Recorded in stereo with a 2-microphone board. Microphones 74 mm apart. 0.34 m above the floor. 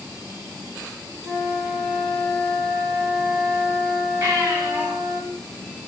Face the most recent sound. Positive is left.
turn(degrees=-55)  # may be behind; listen again after turning